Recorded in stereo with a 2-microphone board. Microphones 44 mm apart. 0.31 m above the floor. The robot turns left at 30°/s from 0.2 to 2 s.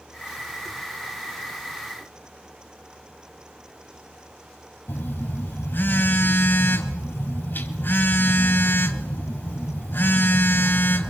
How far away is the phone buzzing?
About 2 m.